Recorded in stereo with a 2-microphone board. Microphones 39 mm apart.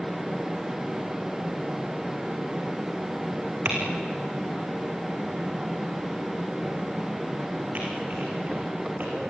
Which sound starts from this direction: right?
Typing on a keyboard, at 3.6 s.